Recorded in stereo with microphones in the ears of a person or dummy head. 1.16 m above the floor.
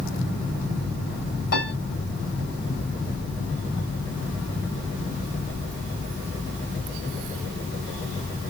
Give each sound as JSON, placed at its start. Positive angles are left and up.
{"t": 1.5, "sound": "a piano", "side_deg": 60, "distance_m": 1.9}